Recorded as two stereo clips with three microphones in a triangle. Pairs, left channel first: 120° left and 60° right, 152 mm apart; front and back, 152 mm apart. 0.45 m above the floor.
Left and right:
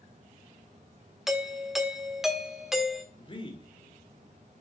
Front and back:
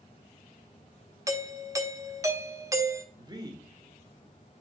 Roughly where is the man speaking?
Behind left.